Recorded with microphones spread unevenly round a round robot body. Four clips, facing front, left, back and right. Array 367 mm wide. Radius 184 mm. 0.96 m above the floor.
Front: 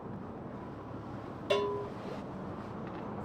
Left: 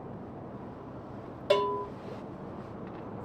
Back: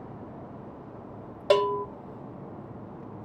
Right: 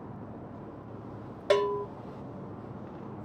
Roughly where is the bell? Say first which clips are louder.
Right 1 dB, back 8 dB; behind.